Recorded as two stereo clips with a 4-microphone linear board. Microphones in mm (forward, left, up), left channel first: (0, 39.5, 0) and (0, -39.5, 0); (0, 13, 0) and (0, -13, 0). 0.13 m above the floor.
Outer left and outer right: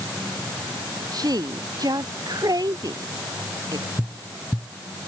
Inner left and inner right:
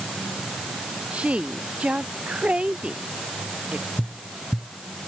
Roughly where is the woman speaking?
Right.